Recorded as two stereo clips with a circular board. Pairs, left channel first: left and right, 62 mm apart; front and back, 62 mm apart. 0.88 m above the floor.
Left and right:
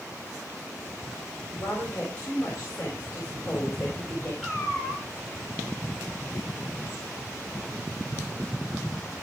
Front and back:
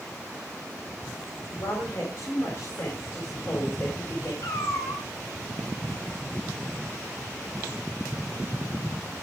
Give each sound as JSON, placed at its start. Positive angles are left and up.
{"t": 1.6, "sound": "a woman speaking", "azimuth_deg": 30, "distance_m": 4.0}
{"t": 4.4, "sound": "a cat meowing", "azimuth_deg": 5, "distance_m": 3.0}